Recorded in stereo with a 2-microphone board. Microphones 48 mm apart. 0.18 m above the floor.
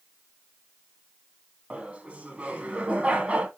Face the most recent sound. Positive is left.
turn(degrees=-25)  # may be behind; listen again after turning